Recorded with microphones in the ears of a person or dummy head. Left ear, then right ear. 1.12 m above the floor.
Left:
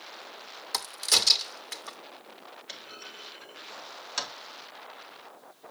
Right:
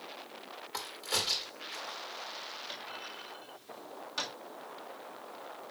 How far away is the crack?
About 1.3 m.